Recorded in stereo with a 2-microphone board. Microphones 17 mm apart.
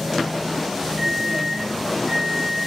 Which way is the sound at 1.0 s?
25° left (ahead or behind).